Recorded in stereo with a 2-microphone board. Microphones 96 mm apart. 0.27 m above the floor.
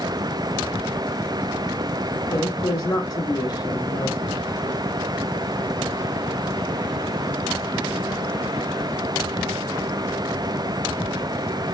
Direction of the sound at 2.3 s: 45° left (ahead or behind).